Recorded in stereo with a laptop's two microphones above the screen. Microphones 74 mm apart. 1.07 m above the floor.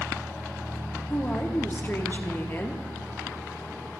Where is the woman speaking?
30° left (ahead or behind), 0.8 m.